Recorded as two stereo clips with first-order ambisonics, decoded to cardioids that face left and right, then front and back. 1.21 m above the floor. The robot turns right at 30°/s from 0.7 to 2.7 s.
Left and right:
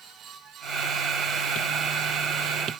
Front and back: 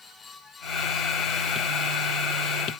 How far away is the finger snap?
No finger snap in this recording.